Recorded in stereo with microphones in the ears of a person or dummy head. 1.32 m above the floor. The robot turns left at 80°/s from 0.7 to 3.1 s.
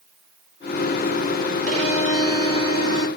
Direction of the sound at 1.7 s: 45° right.